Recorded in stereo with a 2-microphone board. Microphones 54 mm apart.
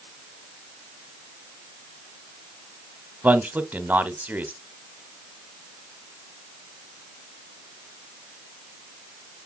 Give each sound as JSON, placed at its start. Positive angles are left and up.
{"t": 3.2, "sound": "a man speaking", "side_deg": -30, "distance_m": 1.4}